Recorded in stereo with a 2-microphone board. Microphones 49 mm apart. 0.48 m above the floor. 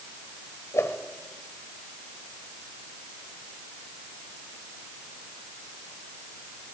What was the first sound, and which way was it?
A whoosh, 65° left (ahead or behind).